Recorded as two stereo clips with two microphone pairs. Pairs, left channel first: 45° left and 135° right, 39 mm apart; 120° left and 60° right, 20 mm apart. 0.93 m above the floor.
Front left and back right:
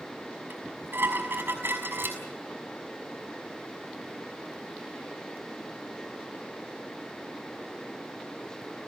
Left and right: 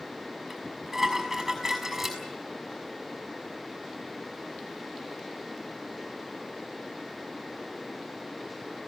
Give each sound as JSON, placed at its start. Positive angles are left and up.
{"t": 0.5, "sound": "dishes clattering", "azimuth_deg": -135, "distance_m": 5.5}